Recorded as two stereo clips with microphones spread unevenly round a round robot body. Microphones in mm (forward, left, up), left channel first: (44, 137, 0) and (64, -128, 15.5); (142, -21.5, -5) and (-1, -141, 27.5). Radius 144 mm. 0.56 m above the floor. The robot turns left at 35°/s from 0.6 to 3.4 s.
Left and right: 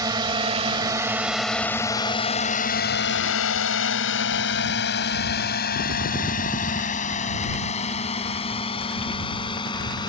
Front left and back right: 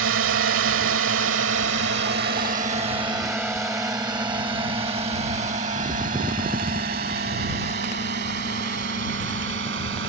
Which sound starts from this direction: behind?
A drone, at 0.0 s.